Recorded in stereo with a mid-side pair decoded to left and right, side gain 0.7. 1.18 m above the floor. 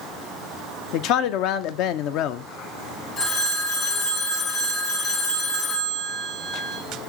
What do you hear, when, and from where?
0.9 s a man speaking: 60° left, 0.6 m
3.2 s a phone ringing: 40° left, 2 m